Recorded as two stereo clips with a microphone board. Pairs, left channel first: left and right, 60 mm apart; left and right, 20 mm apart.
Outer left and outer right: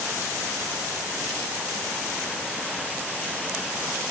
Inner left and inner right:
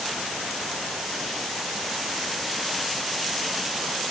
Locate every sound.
Only background noise.